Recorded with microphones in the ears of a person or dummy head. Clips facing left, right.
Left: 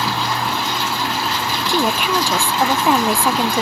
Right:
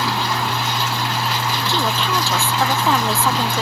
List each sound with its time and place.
1.7 s a woman speaking: 20° left (ahead or behind)